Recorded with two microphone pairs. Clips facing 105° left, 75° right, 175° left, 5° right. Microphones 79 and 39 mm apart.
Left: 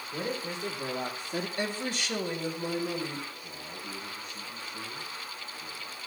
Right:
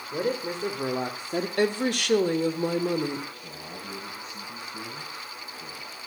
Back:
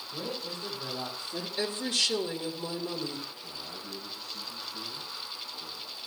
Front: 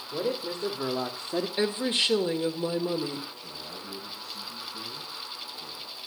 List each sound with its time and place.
0.1 s a man speaking: 35° right, 2 m; by 1.5 s 30° right, 1.0 m
1.6 s a woman speaking: 65° right, 1.8 m
3.4 s a man speaking: 80° right, 5.5 m